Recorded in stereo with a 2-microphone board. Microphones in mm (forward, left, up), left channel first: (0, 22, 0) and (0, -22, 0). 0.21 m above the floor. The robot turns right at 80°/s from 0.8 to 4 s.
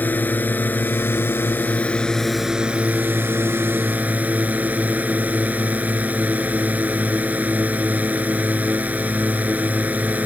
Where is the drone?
55° left; by 10.3 s 45° right.